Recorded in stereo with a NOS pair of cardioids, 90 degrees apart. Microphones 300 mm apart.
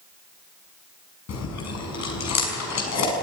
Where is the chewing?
65° left, 5 m.